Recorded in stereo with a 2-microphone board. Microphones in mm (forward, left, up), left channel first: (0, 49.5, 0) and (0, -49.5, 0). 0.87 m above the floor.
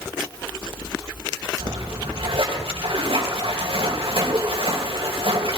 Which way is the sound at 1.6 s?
80° right.